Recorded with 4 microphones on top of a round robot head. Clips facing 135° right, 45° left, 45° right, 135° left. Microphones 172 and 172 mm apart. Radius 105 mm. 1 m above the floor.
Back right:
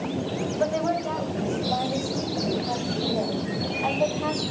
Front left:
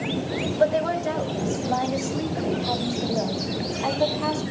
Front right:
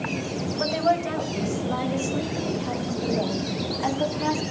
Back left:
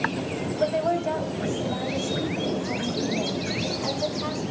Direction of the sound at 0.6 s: 25° right.